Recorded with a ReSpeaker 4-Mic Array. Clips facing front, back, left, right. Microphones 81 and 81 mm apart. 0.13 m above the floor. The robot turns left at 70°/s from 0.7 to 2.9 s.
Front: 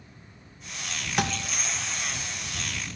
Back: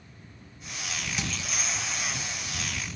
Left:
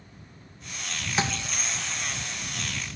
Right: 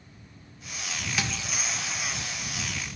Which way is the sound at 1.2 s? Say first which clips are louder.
Front 9 dB, left 5 dB; 30° left.